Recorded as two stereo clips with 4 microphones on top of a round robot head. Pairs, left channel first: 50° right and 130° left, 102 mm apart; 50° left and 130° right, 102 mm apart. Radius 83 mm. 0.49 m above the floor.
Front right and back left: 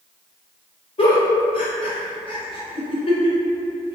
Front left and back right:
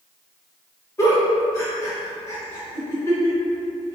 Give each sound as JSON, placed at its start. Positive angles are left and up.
{"t": 1.0, "sound": "a giggle", "azimuth_deg": -15, "distance_m": 1.1}